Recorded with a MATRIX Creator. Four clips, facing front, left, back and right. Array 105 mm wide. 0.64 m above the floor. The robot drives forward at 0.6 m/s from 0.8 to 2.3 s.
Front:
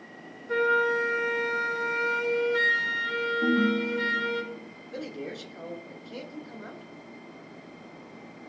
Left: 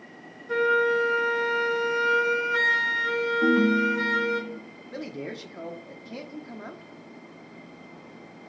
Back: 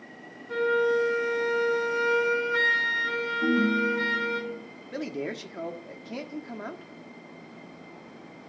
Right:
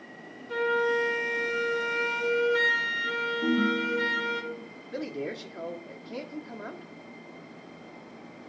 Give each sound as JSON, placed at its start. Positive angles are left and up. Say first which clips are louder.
{"t": 0.5, "sound": "a flute", "louder": "left 4 dB, even", "azimuth_deg": 65, "distance_m": 1.2}
{"t": 3.4, "sound": "a ringtone", "louder": "left 5 dB, back 1 dB", "azimuth_deg": 95, "distance_m": 1.6}
{"t": 4.9, "sound": "a man speaking", "louder": "right 2 dB, back 4 dB", "azimuth_deg": 165, "distance_m": 0.9}